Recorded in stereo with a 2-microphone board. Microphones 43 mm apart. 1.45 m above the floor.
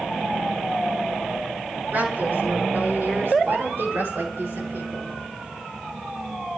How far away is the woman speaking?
About 5 m.